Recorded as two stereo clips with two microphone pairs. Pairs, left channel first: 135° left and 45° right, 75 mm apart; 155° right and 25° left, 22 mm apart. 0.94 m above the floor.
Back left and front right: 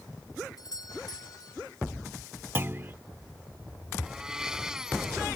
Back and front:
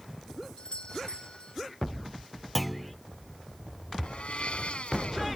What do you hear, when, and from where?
0.6 s a doorbell: 170° left
2.5 s a clunk: 65° right
4.0 s a blender: 125° right